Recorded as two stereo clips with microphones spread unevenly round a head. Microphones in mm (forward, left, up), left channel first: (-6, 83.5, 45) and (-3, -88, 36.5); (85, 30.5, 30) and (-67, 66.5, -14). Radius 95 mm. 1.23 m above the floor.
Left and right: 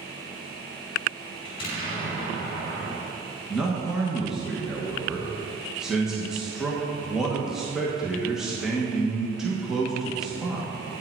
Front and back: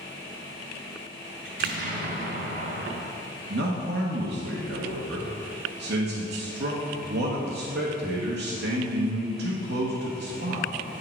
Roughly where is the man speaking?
Behind.